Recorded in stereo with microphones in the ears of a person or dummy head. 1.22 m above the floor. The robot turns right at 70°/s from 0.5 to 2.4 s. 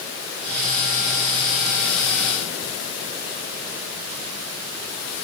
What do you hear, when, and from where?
Only background noise.